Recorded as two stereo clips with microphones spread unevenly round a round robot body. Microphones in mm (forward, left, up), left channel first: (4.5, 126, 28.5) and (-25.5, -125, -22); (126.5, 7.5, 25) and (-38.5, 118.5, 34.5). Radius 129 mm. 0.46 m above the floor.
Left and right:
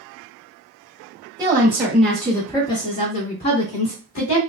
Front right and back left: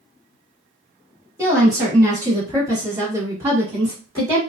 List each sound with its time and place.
1.4 s a woman speaking: 145° right, 1.4 m; by 4.4 s 70° left, 1.6 m